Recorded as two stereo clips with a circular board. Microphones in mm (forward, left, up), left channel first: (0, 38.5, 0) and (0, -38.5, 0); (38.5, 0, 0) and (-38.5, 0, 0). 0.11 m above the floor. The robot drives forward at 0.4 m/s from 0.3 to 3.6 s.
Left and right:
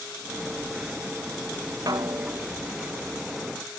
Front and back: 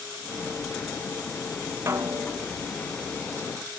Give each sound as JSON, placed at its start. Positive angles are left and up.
{"t": 1.9, "sound": "a snare drum", "azimuth_deg": -125}